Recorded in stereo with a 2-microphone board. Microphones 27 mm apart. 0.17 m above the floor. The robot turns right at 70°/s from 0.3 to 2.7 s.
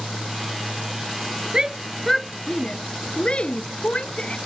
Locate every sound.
1.5 s a shout: 30° right (ahead or behind); by 4.4 s 40° left (ahead or behind)